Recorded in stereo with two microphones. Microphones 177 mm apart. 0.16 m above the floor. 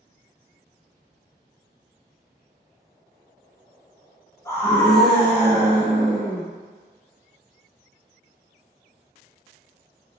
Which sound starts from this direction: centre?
A scream, at 4.5 s.